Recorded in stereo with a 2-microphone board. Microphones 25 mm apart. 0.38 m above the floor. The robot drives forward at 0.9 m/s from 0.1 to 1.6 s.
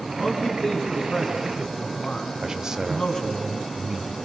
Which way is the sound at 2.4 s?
25° right (ahead or behind).